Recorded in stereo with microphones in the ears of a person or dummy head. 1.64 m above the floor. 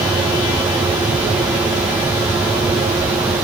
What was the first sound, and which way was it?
Only background noise.